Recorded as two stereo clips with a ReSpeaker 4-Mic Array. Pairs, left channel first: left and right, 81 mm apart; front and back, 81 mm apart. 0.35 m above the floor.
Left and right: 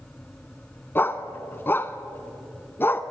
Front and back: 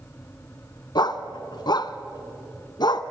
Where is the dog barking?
25° left, 0.8 m.